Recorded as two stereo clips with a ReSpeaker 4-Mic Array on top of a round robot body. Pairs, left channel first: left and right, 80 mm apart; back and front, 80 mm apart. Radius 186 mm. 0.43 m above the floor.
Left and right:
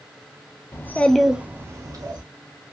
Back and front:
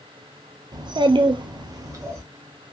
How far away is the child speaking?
About 0.6 m.